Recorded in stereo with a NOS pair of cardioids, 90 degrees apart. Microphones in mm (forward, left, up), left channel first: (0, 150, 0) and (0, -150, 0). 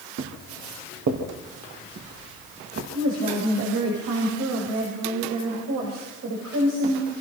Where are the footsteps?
65° right, 5.5 m; by 2.8 s 55° right, 7.5 m.